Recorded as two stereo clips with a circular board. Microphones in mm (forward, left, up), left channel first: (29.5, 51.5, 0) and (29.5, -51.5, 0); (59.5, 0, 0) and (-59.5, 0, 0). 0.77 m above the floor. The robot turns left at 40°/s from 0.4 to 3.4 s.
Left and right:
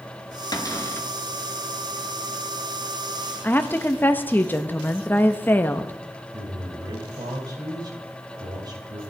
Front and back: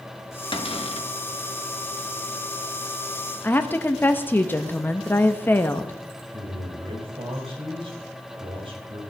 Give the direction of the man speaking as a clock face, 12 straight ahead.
5 o'clock.